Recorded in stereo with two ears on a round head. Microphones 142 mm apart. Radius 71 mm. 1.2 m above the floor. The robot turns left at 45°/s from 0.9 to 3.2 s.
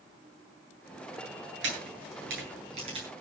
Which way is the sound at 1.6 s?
85° right.